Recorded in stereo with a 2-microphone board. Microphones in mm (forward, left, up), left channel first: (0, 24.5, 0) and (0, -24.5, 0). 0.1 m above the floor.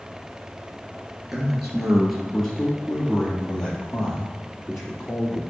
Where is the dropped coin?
I don't hear a dropped coin.